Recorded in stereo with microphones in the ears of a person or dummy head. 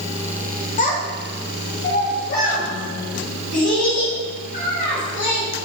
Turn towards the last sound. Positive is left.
turn(degrees=55)  # may be behind; listen again after turning